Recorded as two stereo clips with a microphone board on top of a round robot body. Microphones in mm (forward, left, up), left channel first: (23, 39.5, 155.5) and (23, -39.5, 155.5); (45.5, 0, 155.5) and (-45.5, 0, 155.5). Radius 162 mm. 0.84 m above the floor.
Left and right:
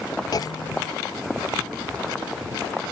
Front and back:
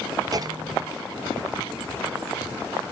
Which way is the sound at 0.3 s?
130° left.